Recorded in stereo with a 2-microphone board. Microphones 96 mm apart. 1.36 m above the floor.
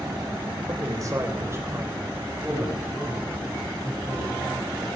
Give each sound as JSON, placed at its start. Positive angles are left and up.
{"t": 0.7, "sound": "a man speaking", "side_deg": -40, "distance_m": 4.0}